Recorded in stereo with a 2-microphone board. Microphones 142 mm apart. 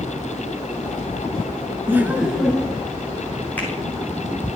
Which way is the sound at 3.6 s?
15° left (ahead or behind).